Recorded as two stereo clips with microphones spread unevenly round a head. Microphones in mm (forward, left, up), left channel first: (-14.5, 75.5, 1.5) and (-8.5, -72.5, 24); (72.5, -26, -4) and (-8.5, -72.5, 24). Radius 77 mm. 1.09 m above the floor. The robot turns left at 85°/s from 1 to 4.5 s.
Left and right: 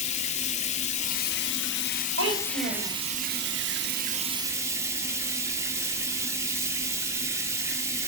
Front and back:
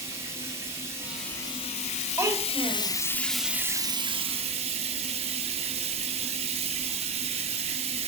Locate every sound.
0.0 s running water: 140° left, 1.5 m; by 8.1 s 160° right, 1.5 m
2.2 s a child speaking: 85° right, 4.5 m; by 2.9 s 150° right, 4.5 m